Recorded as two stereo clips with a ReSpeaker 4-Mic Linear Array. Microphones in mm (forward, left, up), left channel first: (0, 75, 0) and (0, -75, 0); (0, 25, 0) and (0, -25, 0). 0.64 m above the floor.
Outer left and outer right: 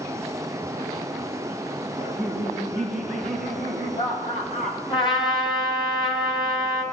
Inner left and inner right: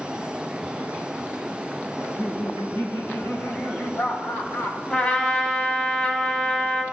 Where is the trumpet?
35° left (ahead or behind), 1.8 m.